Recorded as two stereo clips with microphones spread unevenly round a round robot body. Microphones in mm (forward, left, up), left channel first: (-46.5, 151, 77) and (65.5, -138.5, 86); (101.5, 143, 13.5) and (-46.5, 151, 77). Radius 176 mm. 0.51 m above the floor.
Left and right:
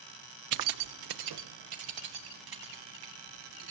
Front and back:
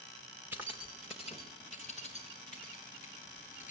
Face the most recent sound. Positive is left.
turn(degrees=-90)